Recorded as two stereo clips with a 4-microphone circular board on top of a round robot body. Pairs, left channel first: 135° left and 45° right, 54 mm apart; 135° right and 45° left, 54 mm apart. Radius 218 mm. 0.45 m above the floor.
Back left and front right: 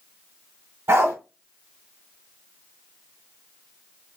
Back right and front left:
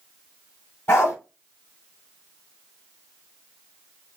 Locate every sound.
0.9 s a dog barking: 85° right, 3 m